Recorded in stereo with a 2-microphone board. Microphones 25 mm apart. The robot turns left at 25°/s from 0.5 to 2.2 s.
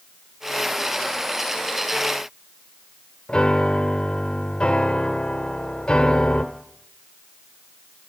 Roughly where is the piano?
Left.